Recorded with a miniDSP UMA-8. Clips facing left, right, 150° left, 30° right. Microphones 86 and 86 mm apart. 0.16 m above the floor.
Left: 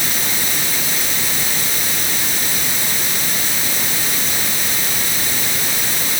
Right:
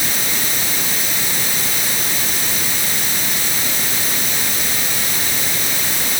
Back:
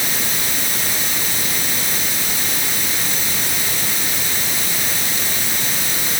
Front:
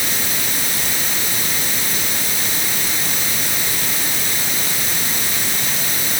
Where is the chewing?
I don't hear chewing.